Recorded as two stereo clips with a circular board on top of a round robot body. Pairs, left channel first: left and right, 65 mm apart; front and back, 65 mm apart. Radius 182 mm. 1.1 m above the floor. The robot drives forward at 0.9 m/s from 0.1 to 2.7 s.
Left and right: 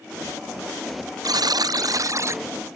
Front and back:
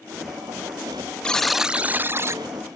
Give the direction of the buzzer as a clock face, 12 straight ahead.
2 o'clock.